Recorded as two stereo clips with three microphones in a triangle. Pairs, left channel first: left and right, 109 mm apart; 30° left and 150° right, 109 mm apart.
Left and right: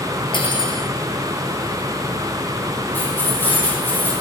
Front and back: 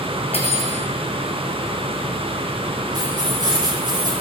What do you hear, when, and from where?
0.3 s cutlery clinking: 50° left, 3 m
2.9 s keys jangling: 160° left, 8.5 m